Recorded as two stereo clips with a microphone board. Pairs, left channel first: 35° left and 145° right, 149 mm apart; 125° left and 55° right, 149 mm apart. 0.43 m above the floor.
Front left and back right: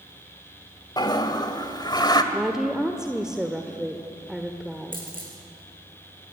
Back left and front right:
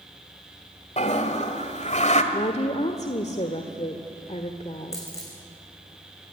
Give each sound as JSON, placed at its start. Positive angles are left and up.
{"t": 1.0, "sound": "a toilet flushing", "azimuth_deg": 95, "distance_m": 1.7}
{"t": 2.3, "sound": "a woman speaking", "azimuth_deg": 130, "distance_m": 1.4}
{"t": 4.9, "sound": "a dropped coin", "azimuth_deg": -165, "distance_m": 7.0}